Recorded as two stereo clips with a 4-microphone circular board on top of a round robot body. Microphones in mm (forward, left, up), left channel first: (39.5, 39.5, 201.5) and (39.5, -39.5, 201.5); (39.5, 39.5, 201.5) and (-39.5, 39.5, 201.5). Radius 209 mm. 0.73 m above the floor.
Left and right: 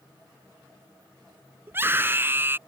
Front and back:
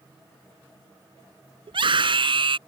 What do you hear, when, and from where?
1.7 s a scream: 155° right